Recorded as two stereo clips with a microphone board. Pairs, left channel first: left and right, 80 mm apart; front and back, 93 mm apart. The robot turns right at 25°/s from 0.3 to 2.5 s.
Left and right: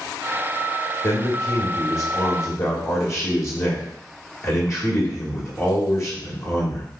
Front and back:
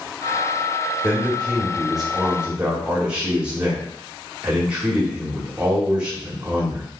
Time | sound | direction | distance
1.0 | a man speaking | 70° left | 1.7 m